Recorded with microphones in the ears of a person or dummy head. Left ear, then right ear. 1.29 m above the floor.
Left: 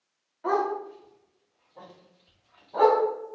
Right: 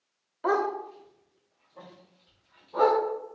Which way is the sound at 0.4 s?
30° right (ahead or behind).